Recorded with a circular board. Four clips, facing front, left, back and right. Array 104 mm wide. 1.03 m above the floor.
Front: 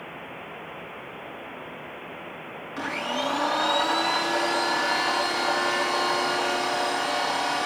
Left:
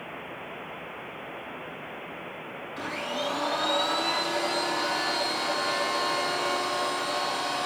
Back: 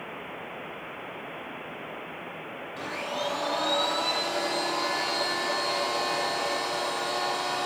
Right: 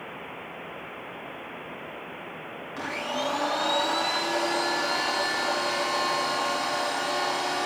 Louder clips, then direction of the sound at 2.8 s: Right 2 dB, front 4 dB; 25° right.